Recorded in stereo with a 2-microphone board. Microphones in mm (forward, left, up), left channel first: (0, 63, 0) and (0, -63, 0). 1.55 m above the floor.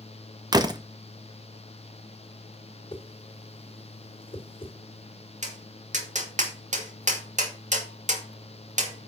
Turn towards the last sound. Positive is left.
turn(degrees=-70)  # may be behind; listen again after turning